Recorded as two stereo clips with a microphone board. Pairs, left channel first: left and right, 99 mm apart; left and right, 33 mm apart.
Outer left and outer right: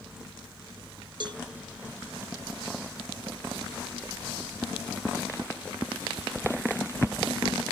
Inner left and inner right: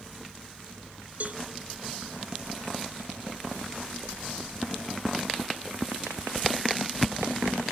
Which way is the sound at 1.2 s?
55° right (ahead or behind).